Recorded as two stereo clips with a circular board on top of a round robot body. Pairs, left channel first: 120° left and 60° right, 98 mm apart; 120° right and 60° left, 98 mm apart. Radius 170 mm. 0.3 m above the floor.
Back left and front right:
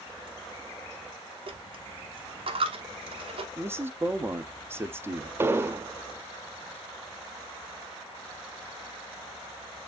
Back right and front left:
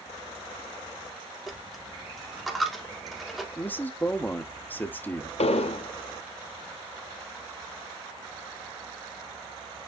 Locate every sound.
1.5 s a dropped coin: 30° right, 1.3 m
3.6 s a man speaking: 80° right, 1.0 m
5.4 s an explosion: 125° right, 0.5 m